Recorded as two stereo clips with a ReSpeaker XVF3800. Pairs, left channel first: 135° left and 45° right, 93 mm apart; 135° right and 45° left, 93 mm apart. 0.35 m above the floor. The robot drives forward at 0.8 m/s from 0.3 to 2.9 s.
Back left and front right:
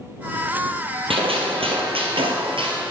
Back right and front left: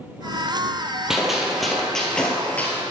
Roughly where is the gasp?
No gasp in this recording.